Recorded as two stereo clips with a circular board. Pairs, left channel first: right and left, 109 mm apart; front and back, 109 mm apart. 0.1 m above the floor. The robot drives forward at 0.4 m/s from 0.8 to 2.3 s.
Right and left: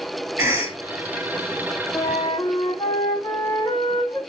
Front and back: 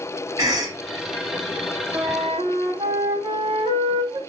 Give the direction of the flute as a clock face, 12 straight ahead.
5 o'clock.